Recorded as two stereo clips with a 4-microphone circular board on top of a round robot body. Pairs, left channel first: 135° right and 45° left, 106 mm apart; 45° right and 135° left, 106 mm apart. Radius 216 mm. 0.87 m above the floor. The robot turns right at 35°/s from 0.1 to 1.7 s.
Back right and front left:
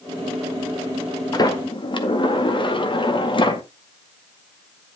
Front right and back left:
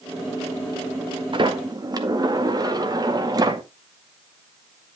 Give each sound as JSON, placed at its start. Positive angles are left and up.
{"t": 1.3, "sound": "a sliding door", "azimuth_deg": 175, "distance_m": 2.0}